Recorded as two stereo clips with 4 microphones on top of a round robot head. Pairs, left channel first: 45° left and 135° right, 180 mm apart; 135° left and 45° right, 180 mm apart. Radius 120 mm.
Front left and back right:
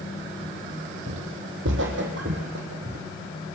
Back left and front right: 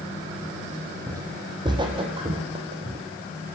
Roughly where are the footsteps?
Behind right.